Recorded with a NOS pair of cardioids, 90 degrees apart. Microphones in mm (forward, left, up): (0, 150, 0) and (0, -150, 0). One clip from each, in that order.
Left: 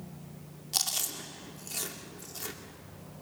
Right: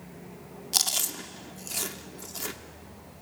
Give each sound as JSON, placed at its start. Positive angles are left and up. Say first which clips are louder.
{"t": 0.7, "sound": "chewing", "louder": "right 5 dB", "azimuth_deg": -25, "distance_m": 2.0}